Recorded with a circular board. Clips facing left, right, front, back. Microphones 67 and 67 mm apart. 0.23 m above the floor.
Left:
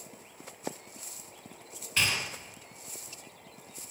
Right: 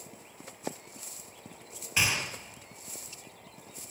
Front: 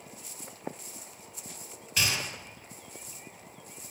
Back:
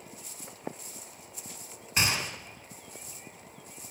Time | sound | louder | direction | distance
2.0 | a gunshot | right 1 dB, back 2 dB | 150° right | 1.7 m